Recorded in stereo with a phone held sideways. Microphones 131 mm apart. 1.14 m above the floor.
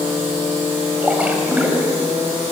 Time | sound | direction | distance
1.0 | a splash | 10° right (ahead or behind) | 4 m